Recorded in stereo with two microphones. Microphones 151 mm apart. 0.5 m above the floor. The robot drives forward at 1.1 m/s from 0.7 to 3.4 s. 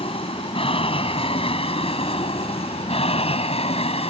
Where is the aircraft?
40° left (ahead or behind).